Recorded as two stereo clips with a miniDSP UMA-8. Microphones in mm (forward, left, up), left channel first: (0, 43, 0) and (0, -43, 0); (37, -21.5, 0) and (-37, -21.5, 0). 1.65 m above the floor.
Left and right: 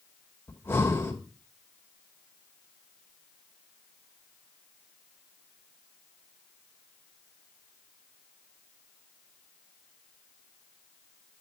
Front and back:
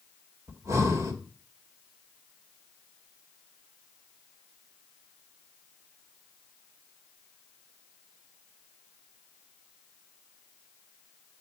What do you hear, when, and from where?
0.5 s breathing: 150° left, 1.7 m